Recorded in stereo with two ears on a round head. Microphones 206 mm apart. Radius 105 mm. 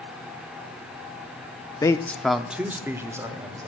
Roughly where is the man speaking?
Centre.